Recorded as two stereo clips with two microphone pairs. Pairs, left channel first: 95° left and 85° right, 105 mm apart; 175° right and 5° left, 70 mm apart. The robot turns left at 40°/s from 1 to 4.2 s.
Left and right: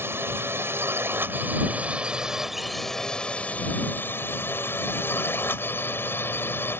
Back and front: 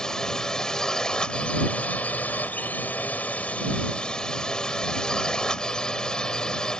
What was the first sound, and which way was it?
A drone, 110° right.